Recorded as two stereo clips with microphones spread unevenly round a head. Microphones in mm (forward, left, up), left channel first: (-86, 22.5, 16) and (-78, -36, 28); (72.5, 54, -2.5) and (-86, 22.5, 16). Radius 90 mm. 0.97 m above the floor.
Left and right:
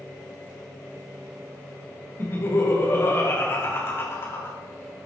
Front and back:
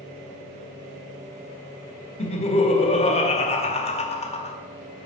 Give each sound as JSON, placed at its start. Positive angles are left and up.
{"t": 2.2, "sound": "laughter", "azimuth_deg": 50, "distance_m": 1.6}